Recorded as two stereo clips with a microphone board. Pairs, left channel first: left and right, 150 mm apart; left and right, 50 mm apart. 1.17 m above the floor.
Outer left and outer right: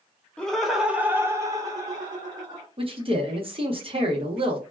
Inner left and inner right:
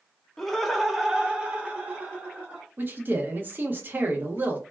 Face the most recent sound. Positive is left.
turn(degrees=-35)  # may be behind; listen again after turning